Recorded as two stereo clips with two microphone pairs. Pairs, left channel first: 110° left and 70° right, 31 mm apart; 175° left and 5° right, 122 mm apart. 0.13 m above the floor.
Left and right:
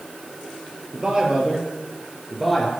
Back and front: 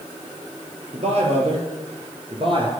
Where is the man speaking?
15° right, 3 m; by 2.7 s 30° left, 2.5 m.